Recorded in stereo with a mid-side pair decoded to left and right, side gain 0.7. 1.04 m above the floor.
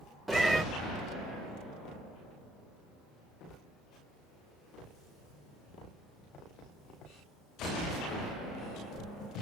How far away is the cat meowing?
About 0.6 m.